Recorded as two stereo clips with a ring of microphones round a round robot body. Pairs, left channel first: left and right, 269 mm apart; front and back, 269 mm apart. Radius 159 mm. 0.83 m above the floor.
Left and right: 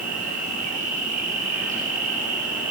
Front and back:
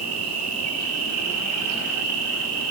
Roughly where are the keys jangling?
No keys jangling in this recording.